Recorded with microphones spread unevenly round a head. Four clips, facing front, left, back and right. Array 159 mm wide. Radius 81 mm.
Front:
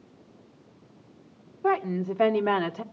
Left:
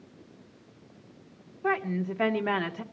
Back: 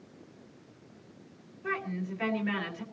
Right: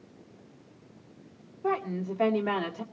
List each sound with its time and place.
1.6 s a woman speaking: 10° left, 2 m